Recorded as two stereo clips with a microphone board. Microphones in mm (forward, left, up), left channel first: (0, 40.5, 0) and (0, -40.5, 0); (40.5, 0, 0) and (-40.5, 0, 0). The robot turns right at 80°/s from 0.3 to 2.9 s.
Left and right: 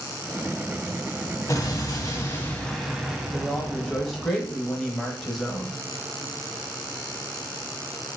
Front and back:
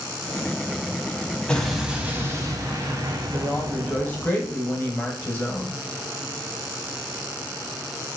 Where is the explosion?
70° left, 0.6 m; by 4.3 s 175° right, 0.6 m.